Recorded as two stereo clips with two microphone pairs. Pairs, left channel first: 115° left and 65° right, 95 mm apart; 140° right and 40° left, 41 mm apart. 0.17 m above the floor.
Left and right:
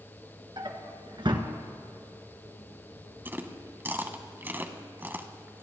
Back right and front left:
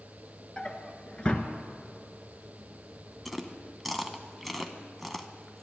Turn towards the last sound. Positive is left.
turn(degrees=-55)